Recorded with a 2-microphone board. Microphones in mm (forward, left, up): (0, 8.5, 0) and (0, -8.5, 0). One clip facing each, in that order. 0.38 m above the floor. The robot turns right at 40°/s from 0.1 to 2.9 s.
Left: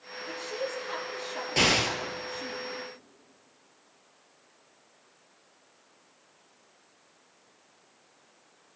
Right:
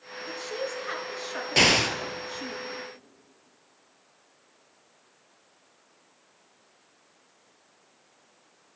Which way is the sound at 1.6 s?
30° right (ahead or behind).